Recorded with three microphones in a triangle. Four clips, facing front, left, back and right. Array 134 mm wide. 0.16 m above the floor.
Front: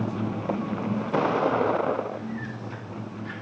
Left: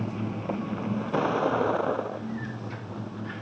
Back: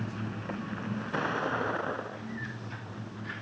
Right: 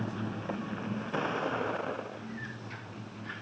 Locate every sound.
0.0 s a vehicle: 20° left; by 3.4 s 50° left